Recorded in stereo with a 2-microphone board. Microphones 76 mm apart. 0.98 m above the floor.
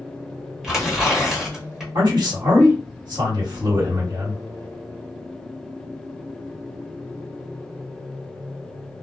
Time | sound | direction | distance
0.6 | tearing paper | 5° right (ahead or behind) | 1.0 m
1.9 | a man speaking | 65° right (ahead or behind) | 1.5 m